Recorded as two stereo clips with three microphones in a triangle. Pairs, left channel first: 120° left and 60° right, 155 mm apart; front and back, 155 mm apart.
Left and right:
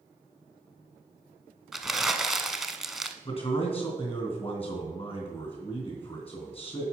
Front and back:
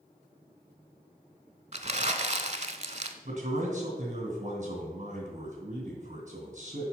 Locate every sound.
1.7 s crumpling: 150° right, 0.6 m
3.2 s a man speaking: 165° left, 2.5 m